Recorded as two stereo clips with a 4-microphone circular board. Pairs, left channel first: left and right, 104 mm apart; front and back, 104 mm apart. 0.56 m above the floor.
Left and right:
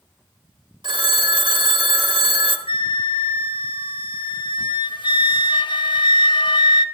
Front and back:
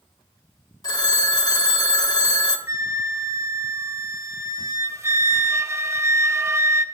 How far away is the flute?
About 0.7 m.